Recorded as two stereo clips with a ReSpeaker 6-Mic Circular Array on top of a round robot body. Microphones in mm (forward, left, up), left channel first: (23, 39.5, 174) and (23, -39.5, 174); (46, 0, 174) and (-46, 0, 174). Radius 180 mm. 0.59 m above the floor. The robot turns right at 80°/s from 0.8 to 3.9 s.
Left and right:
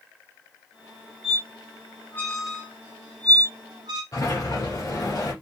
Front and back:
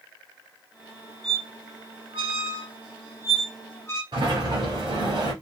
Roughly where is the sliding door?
Behind left.